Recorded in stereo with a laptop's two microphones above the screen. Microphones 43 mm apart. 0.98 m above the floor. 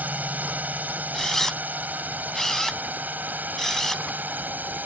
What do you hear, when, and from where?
0.0 s a drone: 40° right (ahead or behind); by 4.9 s 45° right (ahead or behind)
1.1 s a camera shutter: 10° left (ahead or behind)